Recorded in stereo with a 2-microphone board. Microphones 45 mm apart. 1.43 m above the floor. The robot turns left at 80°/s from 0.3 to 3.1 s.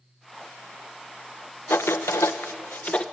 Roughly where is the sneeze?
I don't hear a sneeze.